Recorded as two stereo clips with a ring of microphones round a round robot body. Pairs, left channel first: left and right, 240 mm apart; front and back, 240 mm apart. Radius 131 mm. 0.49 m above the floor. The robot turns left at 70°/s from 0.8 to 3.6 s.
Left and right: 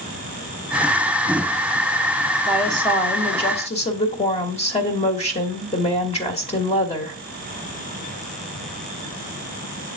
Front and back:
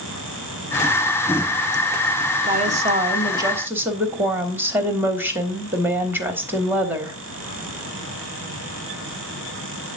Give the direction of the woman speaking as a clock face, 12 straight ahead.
6 o'clock.